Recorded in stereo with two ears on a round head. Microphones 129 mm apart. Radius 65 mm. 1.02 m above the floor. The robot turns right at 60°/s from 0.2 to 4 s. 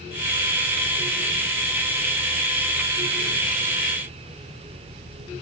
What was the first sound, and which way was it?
Only background noise.